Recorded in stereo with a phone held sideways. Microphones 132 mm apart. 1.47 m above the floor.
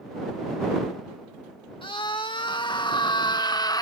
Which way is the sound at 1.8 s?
40° left (ahead or behind).